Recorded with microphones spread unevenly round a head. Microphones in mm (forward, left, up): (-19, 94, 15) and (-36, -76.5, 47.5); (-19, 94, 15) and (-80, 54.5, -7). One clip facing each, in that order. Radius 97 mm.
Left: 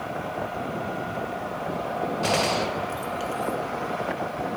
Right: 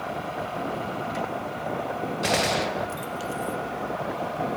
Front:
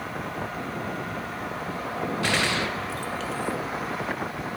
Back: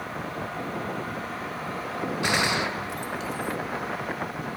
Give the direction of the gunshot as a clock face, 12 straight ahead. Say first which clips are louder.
Right 1 dB, back 1 dB; 2 o'clock.